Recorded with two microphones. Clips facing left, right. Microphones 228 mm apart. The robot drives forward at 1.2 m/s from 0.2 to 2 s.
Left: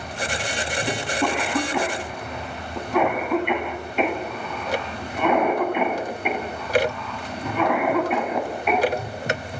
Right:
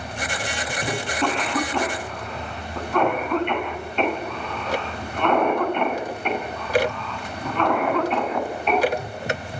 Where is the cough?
5° left (ahead or behind), 9 m; by 8.9 s 10° left (ahead or behind), 7.5 m.